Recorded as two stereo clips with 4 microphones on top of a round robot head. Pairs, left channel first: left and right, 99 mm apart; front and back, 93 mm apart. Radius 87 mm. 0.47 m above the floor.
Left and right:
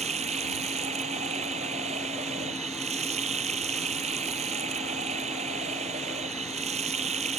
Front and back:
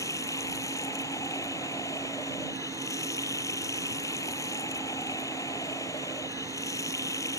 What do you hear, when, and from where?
0.0 s running water: 65° right